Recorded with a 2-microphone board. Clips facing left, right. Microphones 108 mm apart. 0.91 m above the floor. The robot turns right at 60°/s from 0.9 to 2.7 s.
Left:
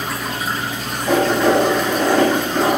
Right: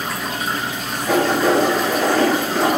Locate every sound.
1.1 s writing: 60° left (ahead or behind), 1.5 m; by 2.8 s 5° right (ahead or behind), 1.5 m